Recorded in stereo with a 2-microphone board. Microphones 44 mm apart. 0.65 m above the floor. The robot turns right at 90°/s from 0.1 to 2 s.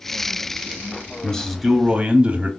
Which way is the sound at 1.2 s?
150° left.